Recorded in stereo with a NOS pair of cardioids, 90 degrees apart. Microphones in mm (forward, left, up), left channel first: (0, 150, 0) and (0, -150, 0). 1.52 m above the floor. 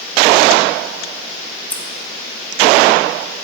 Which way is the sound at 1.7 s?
5° left.